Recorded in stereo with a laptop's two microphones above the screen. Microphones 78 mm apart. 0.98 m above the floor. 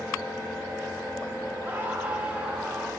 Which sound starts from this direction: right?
A scream, at 1.6 s.